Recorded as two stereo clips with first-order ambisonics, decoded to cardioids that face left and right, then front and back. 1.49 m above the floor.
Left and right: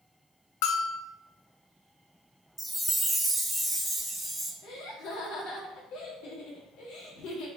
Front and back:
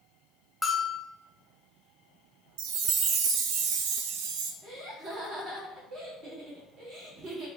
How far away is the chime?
About 0.5 m.